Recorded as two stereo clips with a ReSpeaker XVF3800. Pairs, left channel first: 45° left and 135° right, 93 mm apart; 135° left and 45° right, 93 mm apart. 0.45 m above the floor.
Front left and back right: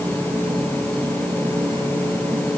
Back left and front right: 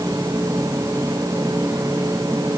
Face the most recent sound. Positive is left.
turn(degrees=-115)